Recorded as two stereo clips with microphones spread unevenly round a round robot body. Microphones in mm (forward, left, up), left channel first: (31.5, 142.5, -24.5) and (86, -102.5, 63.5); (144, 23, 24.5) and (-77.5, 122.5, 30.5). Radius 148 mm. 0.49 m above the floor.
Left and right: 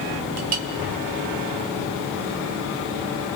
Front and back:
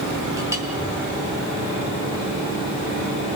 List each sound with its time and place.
0.4 s a clink: 125° right, 1.0 m